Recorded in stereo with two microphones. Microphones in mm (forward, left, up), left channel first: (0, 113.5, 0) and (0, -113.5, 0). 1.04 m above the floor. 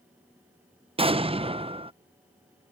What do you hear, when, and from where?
1.0 s an explosion: 25° right (ahead or behind)